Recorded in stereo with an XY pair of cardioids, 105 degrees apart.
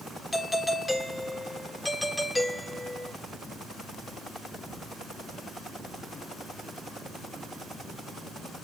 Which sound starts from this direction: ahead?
A doorbell, at 0.3 s.